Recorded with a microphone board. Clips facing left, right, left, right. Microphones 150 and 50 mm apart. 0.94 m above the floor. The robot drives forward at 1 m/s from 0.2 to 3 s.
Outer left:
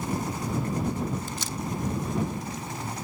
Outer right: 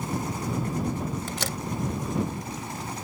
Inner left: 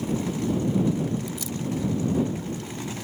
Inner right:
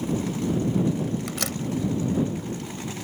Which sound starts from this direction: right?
A door slam, at 1.3 s.